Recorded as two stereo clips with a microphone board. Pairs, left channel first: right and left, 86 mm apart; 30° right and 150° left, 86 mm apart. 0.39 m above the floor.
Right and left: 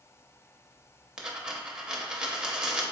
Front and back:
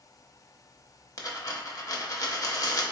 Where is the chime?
No chime in this recording.